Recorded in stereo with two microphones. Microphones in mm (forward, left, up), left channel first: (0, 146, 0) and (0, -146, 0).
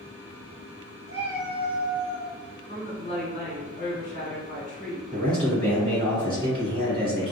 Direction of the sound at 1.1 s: 20° left (ahead or behind).